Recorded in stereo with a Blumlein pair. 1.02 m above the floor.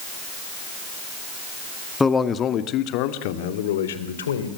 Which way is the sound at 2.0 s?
10° left.